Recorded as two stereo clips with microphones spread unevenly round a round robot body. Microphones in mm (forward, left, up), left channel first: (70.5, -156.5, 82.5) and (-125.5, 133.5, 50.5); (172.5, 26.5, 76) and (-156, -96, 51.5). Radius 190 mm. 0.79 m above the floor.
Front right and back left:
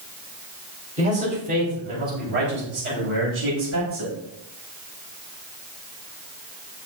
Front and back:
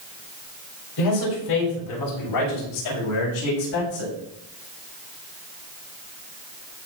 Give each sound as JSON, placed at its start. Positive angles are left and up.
{"t": 1.0, "sound": "a man speaking", "azimuth_deg": 50, "distance_m": 5.5}